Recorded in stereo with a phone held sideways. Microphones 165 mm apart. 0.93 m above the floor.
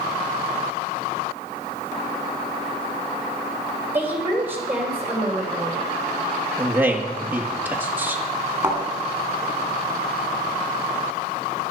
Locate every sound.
3.9 s a woman speaking: 10° right (ahead or behind), 3 m
6.6 s a man speaking: 10° right (ahead or behind), 1.5 m
8.6 s a thud: 15° right (ahead or behind), 2.5 m